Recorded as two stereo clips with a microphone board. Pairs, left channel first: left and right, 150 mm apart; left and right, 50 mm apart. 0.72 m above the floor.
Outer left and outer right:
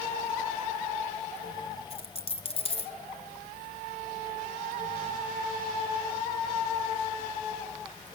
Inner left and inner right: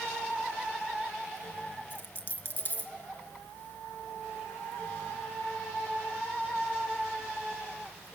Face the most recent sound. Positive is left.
turn(degrees=40)  # may be behind; listen again after turning